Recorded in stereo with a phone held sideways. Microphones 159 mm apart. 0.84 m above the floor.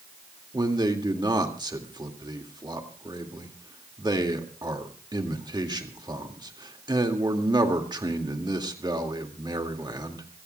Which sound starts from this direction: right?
A man speaking, at 0.5 s.